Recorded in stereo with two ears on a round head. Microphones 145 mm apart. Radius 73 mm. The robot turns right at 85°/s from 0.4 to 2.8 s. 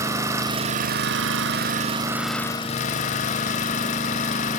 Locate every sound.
0.0 s an engine running: 160° right, 0.8 m; by 4.6 s 45° left, 0.8 m